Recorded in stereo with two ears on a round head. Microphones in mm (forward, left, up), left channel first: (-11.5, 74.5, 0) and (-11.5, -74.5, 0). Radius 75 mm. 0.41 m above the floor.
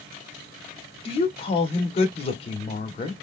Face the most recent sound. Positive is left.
turn(degrees=35)  # may be behind; listen again after turning